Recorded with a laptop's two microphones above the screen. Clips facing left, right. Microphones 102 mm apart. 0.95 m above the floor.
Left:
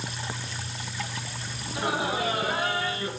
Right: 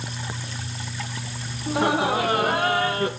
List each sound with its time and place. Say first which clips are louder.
1.7 s laughter: right 7 dB; 70° right (ahead or behind), 2.0 m; by 3.1 s 55° right (ahead or behind), 1.3 m